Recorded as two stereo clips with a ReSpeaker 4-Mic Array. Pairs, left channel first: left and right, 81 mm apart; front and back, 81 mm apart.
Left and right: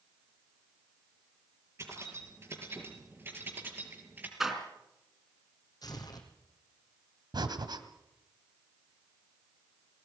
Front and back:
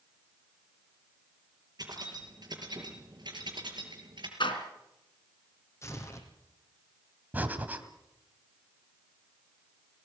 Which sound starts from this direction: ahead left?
Tearing paper, at 5.8 s.